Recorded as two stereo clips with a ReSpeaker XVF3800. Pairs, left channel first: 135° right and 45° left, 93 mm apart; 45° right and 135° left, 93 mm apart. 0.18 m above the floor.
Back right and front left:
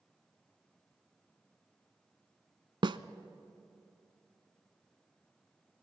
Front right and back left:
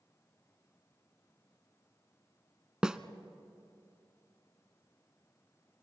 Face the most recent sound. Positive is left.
turn(degrees=55)